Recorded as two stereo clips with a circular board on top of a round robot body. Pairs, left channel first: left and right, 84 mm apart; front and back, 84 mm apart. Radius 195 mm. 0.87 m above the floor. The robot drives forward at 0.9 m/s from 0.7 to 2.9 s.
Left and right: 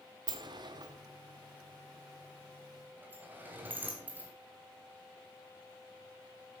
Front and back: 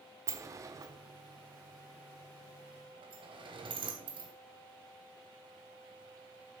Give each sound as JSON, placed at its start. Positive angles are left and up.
{"t": 0.3, "sound": "a sliding door", "azimuth_deg": -125, "distance_m": 1.4}